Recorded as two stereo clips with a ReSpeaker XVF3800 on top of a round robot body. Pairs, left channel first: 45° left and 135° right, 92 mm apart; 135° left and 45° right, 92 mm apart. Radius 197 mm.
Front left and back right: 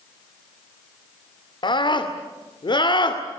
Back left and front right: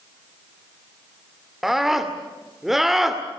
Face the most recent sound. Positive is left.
turn(degrees=40)